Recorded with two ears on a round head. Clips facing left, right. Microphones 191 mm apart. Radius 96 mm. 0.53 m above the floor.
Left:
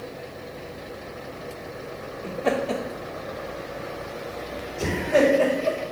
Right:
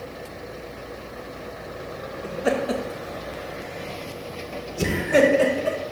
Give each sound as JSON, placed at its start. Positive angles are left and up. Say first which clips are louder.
{"t": 2.2, "sound": "laughter", "louder": "right 1 dB", "side_deg": -5, "distance_m": 0.9}